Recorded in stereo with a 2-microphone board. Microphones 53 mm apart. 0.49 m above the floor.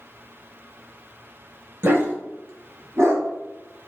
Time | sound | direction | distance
1.8 | a dog barking | 45° right (ahead or behind) | 0.7 m